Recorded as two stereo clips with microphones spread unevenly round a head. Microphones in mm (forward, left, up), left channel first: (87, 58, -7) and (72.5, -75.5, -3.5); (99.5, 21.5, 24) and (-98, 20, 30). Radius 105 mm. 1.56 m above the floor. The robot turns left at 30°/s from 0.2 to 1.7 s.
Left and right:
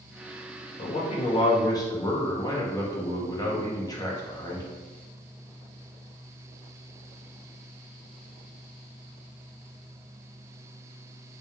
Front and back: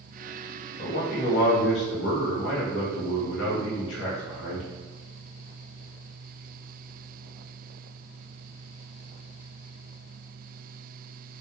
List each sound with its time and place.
0.8 s a man speaking: 50° left, 1.0 m; by 4.7 s 20° left, 1.0 m